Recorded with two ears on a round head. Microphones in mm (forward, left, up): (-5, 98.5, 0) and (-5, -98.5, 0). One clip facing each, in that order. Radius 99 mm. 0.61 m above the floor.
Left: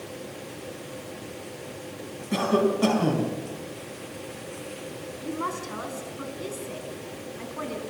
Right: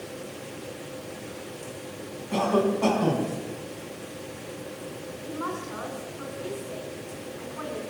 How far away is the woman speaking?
About 5 m.